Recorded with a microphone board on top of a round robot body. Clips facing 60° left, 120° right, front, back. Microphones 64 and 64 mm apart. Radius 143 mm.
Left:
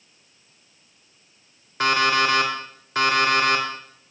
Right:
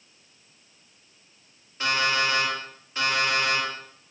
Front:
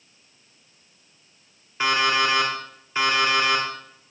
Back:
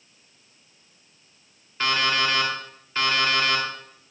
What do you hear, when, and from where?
1.8 s an alarm clock: 75° left, 2.5 m